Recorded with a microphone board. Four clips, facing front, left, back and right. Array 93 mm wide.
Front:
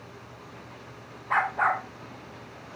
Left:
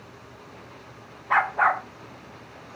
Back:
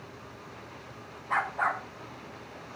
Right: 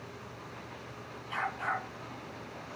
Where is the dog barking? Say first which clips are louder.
Left 13 dB, front 4 dB; 75° left, 3.5 m.